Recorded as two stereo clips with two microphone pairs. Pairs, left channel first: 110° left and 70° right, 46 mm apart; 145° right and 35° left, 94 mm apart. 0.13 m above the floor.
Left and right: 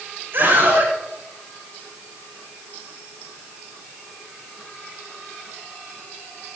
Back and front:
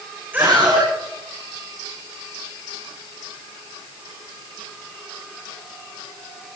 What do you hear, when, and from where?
0.3 s a scream: 35° right, 8.5 m